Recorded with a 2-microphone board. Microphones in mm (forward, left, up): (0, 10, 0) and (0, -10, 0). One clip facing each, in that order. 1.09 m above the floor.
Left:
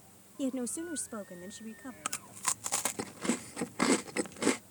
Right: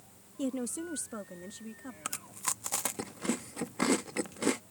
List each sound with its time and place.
0.4 s a woman speaking: 5° left (ahead or behind)
2.0 s chewing: 10° left (ahead or behind)